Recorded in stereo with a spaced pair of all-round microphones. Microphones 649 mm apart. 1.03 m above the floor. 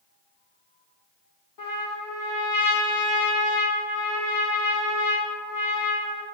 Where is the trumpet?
30° left (ahead or behind), 0.7 m.